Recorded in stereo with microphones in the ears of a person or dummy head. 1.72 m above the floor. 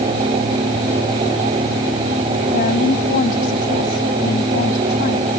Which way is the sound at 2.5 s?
50° left (ahead or behind).